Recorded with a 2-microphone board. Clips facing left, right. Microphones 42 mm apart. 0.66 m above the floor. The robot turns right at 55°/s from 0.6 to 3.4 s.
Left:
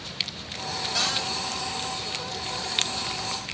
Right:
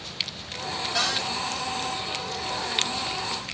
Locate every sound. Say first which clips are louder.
0.9 s a cupboard door: right 2 dB; 15° right (ahead or behind), 1.1 m; by 1.3 s centre (ahead or behind), 1.1 m